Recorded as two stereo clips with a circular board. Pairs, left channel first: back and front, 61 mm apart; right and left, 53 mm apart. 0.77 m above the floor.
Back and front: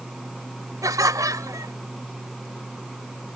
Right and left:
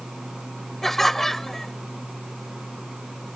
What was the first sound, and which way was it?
Laughter, 5° right.